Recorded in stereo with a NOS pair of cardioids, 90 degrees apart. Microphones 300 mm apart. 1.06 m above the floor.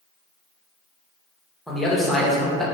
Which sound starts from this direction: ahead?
A man speaking, at 1.7 s.